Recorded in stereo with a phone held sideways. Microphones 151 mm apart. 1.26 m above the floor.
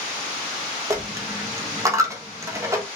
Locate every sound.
0.9 s a dropped coin: 20° right (ahead or behind), 0.5 m